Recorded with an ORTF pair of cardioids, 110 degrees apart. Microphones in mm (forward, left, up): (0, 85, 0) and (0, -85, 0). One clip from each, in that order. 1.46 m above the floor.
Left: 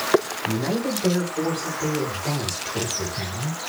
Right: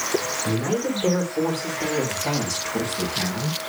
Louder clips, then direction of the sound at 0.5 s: Right 1 dB; 25° right.